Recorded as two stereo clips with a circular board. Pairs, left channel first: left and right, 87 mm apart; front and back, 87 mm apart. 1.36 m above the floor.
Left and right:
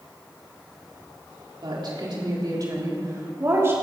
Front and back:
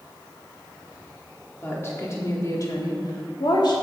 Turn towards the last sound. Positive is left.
turn(degrees=-30)